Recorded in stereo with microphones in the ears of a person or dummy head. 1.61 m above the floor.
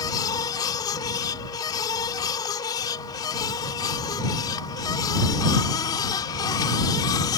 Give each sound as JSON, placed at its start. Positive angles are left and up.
{"t": 0.0, "sound": "a machine running", "side_deg": 25}